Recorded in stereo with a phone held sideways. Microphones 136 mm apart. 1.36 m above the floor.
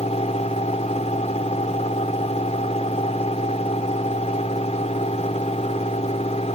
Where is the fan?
55° left (ahead or behind).